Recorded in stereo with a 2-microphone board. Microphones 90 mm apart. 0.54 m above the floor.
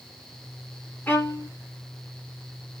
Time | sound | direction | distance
1.1 | a violin | 25° left (ahead or behind) | 0.7 m